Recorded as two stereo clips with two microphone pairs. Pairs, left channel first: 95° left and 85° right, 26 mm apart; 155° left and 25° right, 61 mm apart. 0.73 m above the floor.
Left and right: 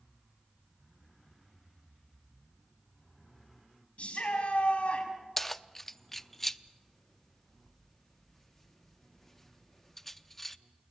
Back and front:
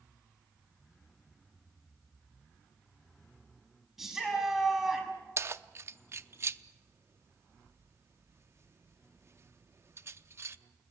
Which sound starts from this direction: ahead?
Keys jangling, at 5.4 s.